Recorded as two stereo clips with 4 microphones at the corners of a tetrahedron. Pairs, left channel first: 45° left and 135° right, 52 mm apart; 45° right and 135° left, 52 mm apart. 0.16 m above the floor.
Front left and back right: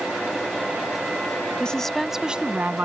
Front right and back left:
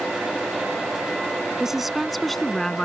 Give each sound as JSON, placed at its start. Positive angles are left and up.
{"t": 1.6, "sound": "a woman speaking", "azimuth_deg": 70}